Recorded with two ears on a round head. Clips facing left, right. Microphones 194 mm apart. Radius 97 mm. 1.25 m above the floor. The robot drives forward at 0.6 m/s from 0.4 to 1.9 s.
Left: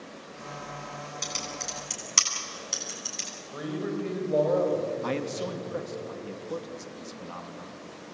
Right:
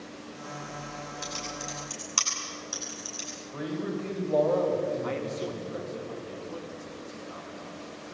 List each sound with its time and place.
1.2 s typing on a keyboard: 35° left (ahead or behind), 8 m; by 3.3 s 30° left (ahead or behind), 8.5 m
3.5 s a man speaking: 15° left (ahead or behind), 6.5 m
5.0 s a man speaking: 60° left (ahead or behind), 2.5 m